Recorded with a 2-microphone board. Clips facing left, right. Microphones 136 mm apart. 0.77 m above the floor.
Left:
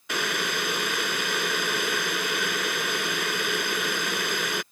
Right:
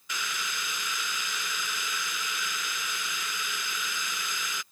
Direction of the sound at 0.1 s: 60° left (ahead or behind).